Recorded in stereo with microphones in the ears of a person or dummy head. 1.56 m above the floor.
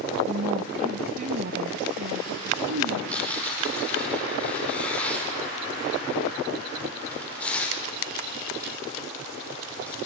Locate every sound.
0.3 s a woman speaking: 35° right (ahead or behind), 1.3 m; by 3.0 s 75° right (ahead or behind), 2.5 m
3.1 s tearing paper: 15° left (ahead or behind), 6 m